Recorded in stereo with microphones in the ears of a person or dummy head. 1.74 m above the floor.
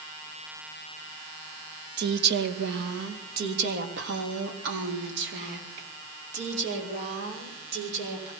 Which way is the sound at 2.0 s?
60° right (ahead or behind).